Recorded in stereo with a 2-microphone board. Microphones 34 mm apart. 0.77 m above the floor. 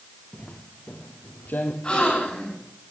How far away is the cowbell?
I don't hear a cowbell.